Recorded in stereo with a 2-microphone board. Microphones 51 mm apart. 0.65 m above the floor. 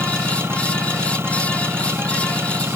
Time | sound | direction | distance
0.0 | an engine running | 50° right (ahead or behind) | ?